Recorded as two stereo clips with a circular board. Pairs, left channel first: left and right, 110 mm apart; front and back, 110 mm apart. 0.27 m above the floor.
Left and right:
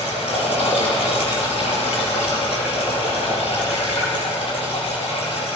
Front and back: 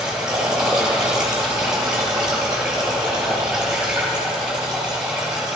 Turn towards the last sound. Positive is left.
turn(degrees=95)